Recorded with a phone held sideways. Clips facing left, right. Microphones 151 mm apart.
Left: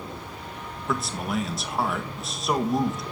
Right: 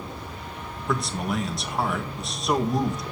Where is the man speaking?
Centre (ahead or behind), 1.8 m.